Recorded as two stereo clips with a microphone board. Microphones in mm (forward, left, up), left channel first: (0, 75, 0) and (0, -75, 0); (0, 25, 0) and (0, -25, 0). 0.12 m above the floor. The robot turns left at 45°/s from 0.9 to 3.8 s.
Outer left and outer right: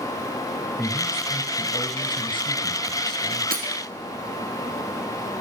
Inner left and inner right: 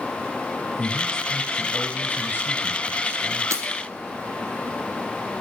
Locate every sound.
0.8 s a man speaking: 165° left, 1.9 m; by 3.4 s 55° left, 1.9 m
3.5 s breaking glass: 70° right (ahead or behind), 1.2 m